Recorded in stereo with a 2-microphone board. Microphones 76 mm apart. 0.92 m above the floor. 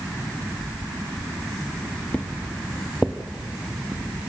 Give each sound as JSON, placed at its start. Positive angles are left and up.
{"t": 2.1, "sound": "footsteps", "side_deg": 15, "distance_m": 1.6}